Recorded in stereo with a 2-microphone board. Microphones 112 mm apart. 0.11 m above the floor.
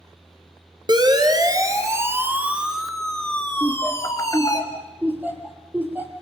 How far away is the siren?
About 3 m.